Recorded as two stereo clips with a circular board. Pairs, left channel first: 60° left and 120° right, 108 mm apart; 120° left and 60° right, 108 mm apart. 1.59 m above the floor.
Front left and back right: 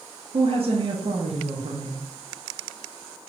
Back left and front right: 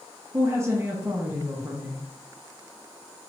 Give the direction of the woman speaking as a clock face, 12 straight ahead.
4 o'clock.